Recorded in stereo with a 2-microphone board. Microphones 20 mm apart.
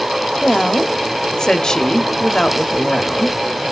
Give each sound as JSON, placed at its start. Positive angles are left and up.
{"t": 0.4, "sound": "a woman speaking", "side_deg": 30, "distance_m": 0.8}